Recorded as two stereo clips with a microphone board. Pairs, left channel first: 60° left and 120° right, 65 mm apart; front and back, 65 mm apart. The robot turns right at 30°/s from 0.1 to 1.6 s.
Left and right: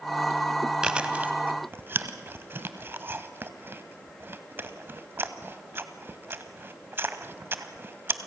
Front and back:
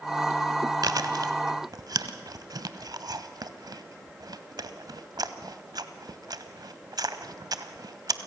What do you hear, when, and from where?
0.8 s chewing: 160° left, 0.9 m; by 8.3 s 175° right, 0.9 m